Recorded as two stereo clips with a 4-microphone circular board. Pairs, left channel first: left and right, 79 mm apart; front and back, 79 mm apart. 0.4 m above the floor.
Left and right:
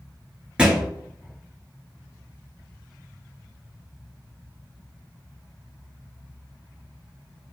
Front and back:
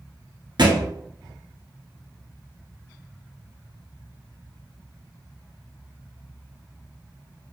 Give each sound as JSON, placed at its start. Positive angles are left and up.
{"t": 0.6, "sound": "a thud", "azimuth_deg": -170, "distance_m": 0.9}